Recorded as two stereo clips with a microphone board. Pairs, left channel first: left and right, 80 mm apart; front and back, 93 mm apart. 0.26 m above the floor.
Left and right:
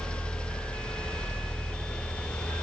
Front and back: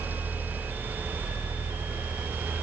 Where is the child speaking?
No child speaking in this recording.